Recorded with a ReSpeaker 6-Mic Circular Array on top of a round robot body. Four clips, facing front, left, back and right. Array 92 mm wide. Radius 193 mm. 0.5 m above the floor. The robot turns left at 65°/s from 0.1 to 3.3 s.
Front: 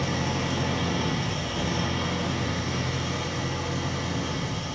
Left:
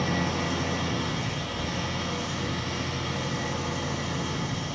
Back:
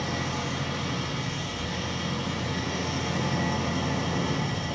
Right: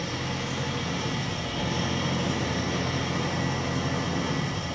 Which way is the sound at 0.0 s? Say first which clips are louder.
Left 4 dB, front 3 dB; 50° left.